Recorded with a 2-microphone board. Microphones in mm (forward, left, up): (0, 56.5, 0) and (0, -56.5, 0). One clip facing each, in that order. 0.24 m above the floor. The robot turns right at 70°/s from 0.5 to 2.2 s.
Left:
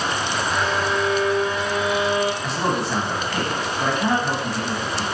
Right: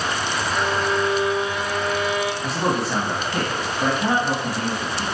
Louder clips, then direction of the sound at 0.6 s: Right 1 dB; 80° right.